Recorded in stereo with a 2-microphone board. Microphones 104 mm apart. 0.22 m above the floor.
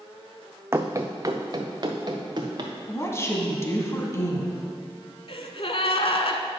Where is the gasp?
65° left (ahead or behind), 0.6 m.